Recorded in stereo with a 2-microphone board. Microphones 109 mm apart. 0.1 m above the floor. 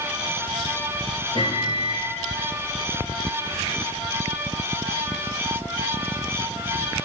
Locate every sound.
1.4 s a microwave: 45° left (ahead or behind), 1.8 m